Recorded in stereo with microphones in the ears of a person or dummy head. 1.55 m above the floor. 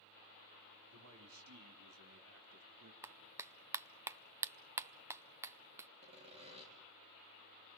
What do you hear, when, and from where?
0.9 s a man speaking: 85° right, 4.5 m; by 2.9 s 70° right (ahead or behind), 2.5 m
3.0 s a clap: 15° right (ahead or behind), 0.6 m
6.0 s sawing: 30° right (ahead or behind), 4 m